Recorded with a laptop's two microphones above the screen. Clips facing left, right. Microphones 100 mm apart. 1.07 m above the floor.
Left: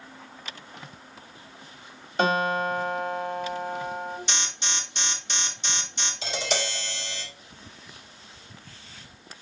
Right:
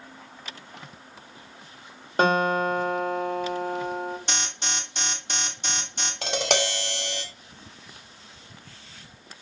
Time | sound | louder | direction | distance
2.2 | a guitar | right 2 dB | 50° right (ahead or behind) | 1.6 m
4.3 | an alarm | right 1 dB | 55° right (ahead or behind) | 1.4 m
6.2 | tapping | right 4 dB | 70° right (ahead or behind) | 0.9 m